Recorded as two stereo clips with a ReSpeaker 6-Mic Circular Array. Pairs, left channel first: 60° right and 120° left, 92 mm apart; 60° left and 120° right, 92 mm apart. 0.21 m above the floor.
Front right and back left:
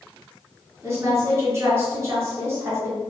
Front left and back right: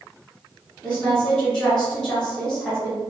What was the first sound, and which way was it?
A woman speaking, 130° left.